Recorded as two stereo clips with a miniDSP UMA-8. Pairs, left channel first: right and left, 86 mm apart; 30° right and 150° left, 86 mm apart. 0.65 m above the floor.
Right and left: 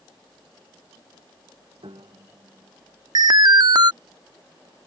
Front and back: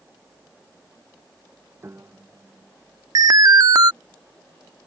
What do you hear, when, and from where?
1.8 s a piano: 90° left
3.1 s an alarm: 115° left